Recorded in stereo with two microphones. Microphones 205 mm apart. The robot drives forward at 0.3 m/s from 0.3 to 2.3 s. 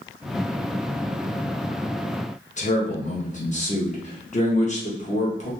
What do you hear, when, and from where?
2.6 s a man speaking: 35° left (ahead or behind), 0.9 m